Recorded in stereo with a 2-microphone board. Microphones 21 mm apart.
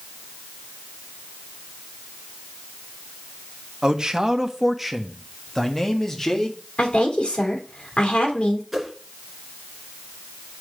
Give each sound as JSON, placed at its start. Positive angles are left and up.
{"t": 3.8, "sound": "a man speaking", "side_deg": -35, "distance_m": 1.1}
{"t": 6.8, "sound": "a woman speaking", "side_deg": 75, "distance_m": 2.5}
{"t": 8.7, "sound": "a whoosh", "side_deg": 0, "distance_m": 2.5}